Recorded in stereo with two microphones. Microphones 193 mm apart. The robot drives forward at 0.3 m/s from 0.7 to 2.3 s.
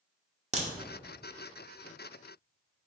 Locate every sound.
0.5 s a crack: 35° right (ahead or behind), 0.7 m